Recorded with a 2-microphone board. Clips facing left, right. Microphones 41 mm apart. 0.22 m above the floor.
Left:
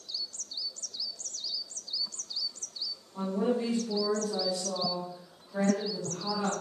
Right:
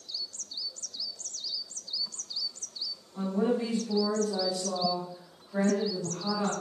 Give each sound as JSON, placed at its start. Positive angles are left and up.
{"t": 3.1, "sound": "a woman speaking", "side_deg": -10, "distance_m": 1.5}